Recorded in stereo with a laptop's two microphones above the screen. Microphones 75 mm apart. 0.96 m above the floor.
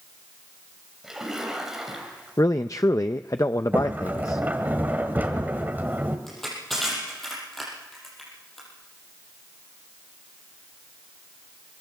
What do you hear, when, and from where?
1.0 s a splash: 5° right (ahead or behind), 3.5 m
2.4 s a man speaking: 45° left (ahead or behind), 0.5 m
3.7 s a sliding door: 25° right (ahead or behind), 1.4 m
6.3 s crushing: 5° left (ahead or behind), 6 m